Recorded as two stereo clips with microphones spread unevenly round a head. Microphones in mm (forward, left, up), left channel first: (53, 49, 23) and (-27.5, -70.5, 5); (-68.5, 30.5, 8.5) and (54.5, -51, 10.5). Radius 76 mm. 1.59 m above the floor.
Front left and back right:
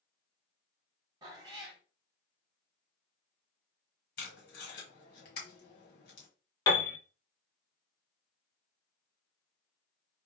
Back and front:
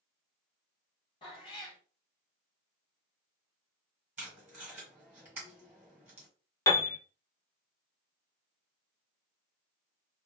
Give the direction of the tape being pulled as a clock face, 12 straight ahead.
10 o'clock.